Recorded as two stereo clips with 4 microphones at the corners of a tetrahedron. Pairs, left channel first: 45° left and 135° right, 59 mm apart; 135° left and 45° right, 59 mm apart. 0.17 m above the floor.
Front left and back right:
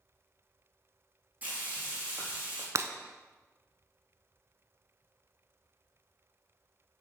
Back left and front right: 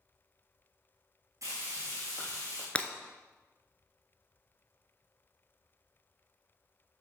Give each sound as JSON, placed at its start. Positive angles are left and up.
{"t": 1.4, "sound": "frying", "azimuth_deg": -75, "distance_m": 4.0}
{"t": 2.8, "sound": "breaking glass", "azimuth_deg": -160, "distance_m": 0.6}